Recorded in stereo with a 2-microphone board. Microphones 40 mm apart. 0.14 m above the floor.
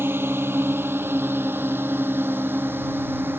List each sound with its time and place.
0.0 s a drone: 70° right (ahead or behind); by 3.4 s 60° right (ahead or behind)